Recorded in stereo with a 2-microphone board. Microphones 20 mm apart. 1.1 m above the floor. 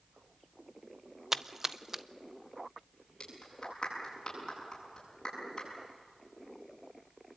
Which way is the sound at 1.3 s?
15° right (ahead or behind).